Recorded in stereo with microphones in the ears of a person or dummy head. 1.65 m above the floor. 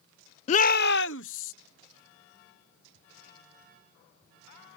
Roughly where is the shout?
Left.